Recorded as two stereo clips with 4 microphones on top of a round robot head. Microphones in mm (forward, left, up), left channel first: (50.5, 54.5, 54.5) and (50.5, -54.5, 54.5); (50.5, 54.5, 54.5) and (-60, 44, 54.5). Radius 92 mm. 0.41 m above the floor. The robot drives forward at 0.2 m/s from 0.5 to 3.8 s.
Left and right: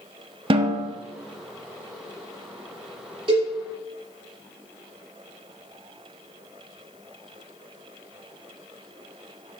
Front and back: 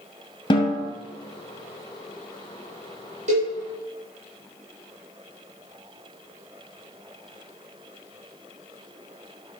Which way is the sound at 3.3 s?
140° right.